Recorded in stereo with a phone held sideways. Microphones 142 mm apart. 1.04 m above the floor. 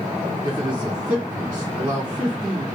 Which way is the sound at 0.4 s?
30° right (ahead or behind).